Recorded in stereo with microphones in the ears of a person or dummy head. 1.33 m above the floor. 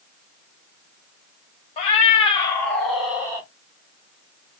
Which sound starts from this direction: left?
A cat meowing, at 1.8 s.